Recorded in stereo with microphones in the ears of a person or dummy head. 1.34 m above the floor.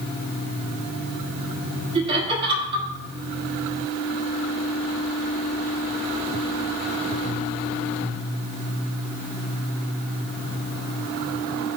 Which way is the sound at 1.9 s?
30° right (ahead or behind).